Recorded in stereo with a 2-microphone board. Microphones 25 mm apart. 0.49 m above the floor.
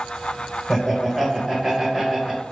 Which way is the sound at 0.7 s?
5° right (ahead or behind).